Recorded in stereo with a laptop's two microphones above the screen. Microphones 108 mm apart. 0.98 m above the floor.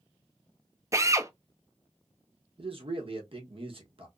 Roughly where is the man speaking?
Right.